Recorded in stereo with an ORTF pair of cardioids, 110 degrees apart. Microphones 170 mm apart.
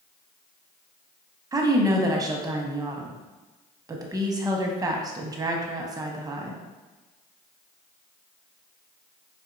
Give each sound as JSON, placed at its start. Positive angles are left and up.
{"t": 1.5, "sound": "a woman speaking", "azimuth_deg": -20, "distance_m": 0.7}